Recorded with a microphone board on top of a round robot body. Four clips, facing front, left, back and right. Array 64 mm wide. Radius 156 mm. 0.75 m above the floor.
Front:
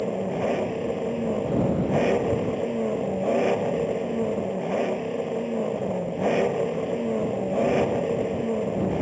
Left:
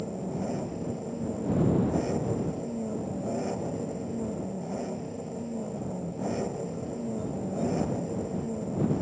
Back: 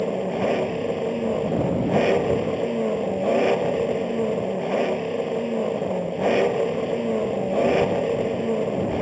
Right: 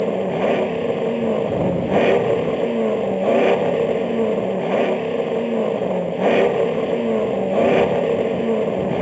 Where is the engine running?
100° right.